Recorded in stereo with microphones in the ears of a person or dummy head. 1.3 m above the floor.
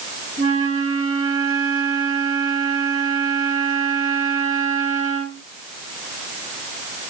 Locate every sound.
0.4 s a flute: 70° right (ahead or behind), 1.2 m